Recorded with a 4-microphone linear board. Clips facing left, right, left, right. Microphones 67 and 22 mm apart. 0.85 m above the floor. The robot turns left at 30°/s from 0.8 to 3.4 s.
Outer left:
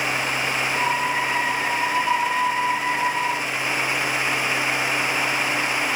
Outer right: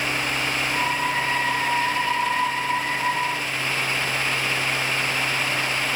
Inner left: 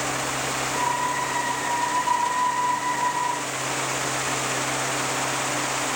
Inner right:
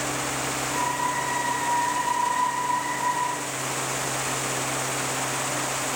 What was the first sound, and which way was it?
Only background noise.